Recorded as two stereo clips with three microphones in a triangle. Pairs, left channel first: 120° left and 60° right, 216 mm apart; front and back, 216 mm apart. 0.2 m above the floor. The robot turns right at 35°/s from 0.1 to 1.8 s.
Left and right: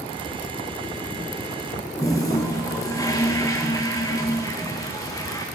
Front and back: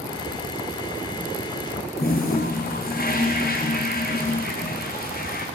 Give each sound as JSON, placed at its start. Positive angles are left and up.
{"t": 2.0, "sound": "a toilet flushing", "azimuth_deg": 45, "distance_m": 4.0}